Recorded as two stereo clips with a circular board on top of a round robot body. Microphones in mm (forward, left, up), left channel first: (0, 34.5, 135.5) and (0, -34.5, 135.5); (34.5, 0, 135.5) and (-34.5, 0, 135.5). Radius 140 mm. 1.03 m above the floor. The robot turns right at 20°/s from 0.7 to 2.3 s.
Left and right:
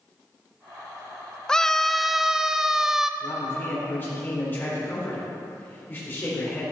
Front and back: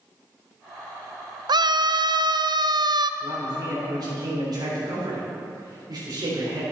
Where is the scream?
170° left, 0.5 m; by 3.1 s 175° right, 0.5 m.